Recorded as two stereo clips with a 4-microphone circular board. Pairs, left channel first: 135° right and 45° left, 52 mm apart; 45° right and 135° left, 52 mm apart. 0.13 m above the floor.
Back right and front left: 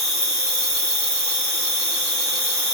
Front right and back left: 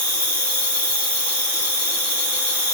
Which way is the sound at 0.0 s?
175° left.